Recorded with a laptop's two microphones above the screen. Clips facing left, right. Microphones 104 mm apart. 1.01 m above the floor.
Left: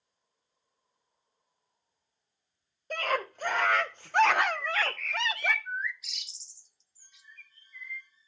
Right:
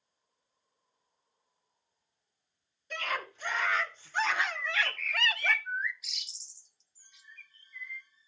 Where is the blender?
I don't hear a blender.